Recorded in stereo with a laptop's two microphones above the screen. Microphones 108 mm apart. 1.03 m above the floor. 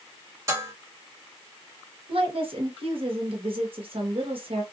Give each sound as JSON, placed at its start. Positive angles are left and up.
{"t": 0.5, "sound": "dishes clattering", "side_deg": -30, "distance_m": 1.6}
{"t": 2.1, "sound": "a woman speaking", "side_deg": -60, "distance_m": 1.1}